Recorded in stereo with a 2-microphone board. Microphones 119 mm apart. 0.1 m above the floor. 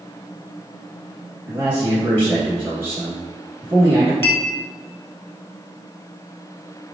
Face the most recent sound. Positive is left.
turn(degrees=20)  # may be behind; listen again after turning